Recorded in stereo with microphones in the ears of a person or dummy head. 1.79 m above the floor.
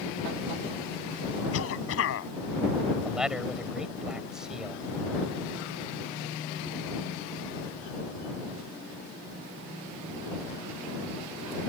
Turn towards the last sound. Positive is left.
turn(degrees=-5)  # may be behind; listen again after turning